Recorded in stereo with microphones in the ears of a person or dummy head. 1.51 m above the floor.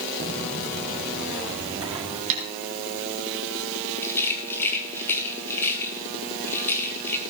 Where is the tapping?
40° right (ahead or behind), 6 m.